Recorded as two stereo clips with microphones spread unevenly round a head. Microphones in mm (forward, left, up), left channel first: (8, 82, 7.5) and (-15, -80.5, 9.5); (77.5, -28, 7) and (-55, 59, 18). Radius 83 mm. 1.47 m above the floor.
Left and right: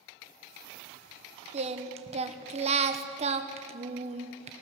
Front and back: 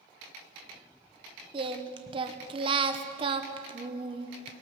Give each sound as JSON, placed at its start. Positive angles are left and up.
{"t": 1.5, "sound": "singing", "azimuth_deg": -150, "distance_m": 1.2}